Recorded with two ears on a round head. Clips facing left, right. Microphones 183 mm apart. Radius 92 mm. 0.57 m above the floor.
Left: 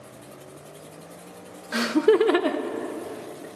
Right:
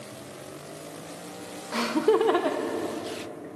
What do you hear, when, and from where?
1.7 s laughter: 15° left (ahead or behind), 0.7 m; by 3.5 s 40° left (ahead or behind), 1.4 m